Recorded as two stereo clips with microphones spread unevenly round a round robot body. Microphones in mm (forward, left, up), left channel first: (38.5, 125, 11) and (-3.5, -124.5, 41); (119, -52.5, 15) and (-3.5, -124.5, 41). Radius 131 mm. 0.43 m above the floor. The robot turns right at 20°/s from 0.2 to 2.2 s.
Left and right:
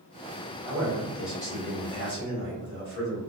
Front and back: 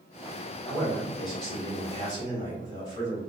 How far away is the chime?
No chime in this recording.